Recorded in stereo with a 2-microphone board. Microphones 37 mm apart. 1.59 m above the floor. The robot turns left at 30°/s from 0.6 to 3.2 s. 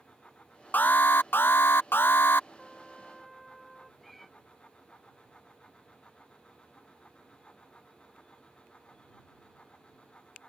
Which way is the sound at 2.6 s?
15° left (ahead or behind).